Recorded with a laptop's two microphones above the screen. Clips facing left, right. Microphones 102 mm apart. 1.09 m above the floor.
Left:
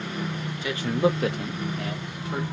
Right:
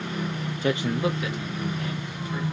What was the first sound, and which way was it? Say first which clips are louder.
A man speaking: left 1 dB; 40° right (ahead or behind).